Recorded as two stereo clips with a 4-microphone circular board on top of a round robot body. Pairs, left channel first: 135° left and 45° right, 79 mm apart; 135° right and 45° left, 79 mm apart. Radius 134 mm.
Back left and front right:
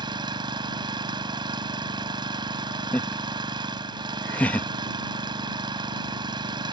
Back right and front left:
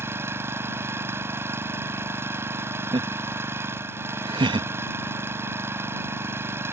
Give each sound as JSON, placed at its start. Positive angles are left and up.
{"t": 0.0, "sound": "an engine running", "azimuth_deg": -15}
{"t": 2.9, "sound": "laughter", "azimuth_deg": 65}